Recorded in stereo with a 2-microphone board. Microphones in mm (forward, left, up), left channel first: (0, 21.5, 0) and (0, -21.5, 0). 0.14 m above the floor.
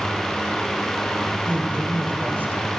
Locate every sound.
1.5 s a woman speaking: 40° right (ahead or behind), 8 m